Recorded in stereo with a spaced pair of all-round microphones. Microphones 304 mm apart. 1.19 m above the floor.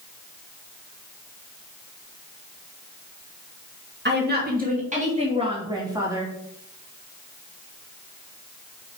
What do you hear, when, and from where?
4.0 s a woman speaking: 35° right (ahead or behind), 2.5 m; by 6.3 s 10° right (ahead or behind), 3 m